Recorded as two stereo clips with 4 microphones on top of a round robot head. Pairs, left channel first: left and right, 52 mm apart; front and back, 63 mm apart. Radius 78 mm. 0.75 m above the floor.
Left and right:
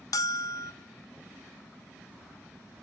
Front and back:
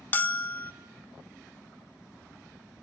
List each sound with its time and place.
0.1 s a bell: 55° left, 0.6 m